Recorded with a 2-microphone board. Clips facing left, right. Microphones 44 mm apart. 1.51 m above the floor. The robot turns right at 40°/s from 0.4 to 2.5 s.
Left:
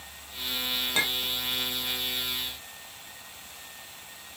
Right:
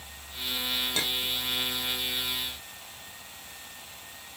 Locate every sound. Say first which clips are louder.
0.9 s a clink: left 2 dB; 35° left (ahead or behind), 0.6 m; by 1.3 s 45° left (ahead or behind), 0.6 m